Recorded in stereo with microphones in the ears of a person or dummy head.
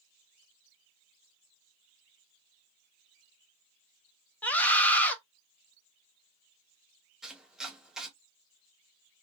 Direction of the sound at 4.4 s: 10° left (ahead or behind).